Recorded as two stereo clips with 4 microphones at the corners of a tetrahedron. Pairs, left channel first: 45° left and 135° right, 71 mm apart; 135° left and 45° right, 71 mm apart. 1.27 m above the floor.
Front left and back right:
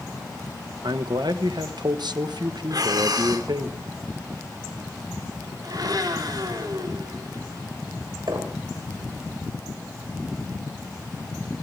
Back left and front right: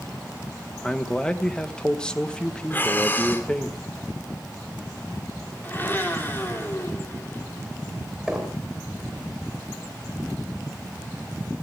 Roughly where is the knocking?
Behind right.